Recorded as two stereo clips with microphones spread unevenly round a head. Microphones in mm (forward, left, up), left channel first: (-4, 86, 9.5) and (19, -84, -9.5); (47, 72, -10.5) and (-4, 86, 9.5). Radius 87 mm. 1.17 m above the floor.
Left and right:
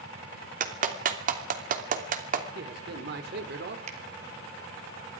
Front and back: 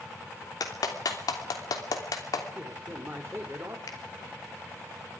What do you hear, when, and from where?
0.6 s a clap: 35° right, 3 m
2.5 s a man speaking: 120° right, 4 m
3.9 s a finger snap: 30° right, 3.5 m